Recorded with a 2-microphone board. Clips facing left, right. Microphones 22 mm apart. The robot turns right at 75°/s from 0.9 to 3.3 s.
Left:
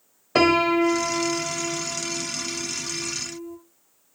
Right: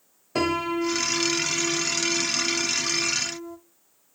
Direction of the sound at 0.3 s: 30° left (ahead or behind).